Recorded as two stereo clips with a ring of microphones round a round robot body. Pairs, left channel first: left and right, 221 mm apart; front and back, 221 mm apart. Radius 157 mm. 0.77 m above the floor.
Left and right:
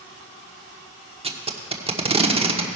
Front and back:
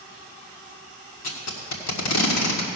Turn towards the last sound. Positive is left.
turn(degrees=-25)